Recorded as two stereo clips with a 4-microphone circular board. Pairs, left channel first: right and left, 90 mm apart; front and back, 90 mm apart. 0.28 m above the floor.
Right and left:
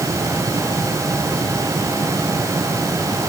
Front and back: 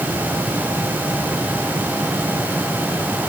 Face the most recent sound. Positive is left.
No sound to turn to.